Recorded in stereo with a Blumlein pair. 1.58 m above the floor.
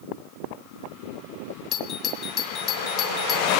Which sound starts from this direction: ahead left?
A doorbell, at 1.7 s.